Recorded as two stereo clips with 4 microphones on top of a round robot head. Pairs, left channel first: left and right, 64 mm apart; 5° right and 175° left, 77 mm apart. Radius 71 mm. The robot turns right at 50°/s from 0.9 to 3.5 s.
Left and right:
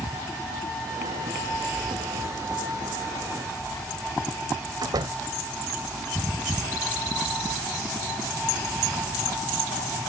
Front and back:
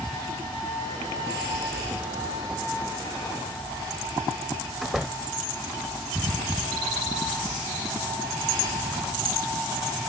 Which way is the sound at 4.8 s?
95° right.